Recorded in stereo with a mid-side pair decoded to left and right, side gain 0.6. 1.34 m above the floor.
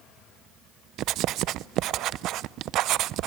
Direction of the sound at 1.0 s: 60° right.